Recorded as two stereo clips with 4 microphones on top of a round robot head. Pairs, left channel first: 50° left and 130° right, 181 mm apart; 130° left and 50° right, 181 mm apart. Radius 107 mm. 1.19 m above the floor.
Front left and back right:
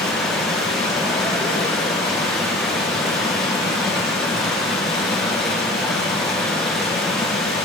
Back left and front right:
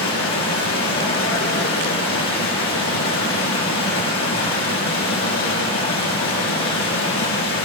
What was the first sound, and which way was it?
Running water, 140° left.